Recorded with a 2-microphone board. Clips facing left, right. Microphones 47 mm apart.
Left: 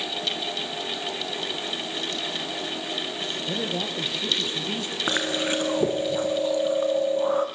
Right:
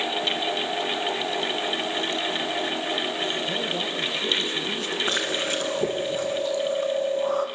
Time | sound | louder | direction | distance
3.5 | a woman speaking | right 1 dB | 45° left (ahead or behind) | 6 m
5.1 | chewing | left 4 dB | 30° left (ahead or behind) | 4 m